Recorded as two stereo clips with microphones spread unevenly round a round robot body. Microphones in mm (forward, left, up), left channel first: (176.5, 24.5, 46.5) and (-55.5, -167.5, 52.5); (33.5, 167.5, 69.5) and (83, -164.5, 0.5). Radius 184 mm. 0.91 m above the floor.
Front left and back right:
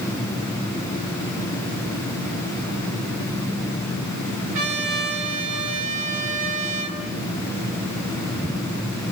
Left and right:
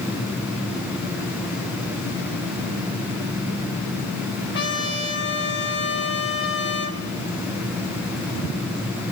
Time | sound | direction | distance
4.5 | a trumpet | straight behind | 3 m